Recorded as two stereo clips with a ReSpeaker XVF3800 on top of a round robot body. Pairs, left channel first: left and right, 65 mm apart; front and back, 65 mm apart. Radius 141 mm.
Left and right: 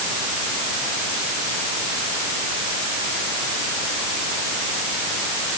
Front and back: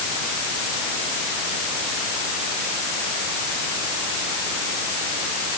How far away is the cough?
No cough in this recording.